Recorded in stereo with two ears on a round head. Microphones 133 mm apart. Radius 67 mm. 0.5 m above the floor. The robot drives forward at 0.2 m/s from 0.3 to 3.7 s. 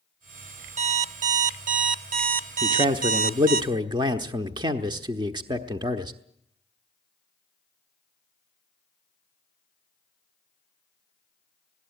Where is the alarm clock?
50° right (ahead or behind), 0.9 m; by 3.6 s 65° right (ahead or behind), 0.8 m.